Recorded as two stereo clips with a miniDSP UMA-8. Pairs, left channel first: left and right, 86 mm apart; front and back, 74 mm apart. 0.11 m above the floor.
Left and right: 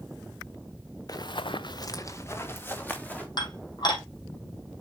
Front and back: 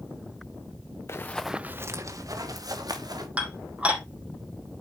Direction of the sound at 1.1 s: 50° left.